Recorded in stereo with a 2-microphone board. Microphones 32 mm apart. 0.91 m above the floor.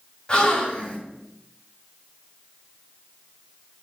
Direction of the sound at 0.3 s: 30° left (ahead or behind).